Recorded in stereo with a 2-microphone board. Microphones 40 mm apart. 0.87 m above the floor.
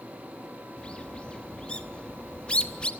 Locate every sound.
0.8 s a bird: 25° left (ahead or behind), 1.1 m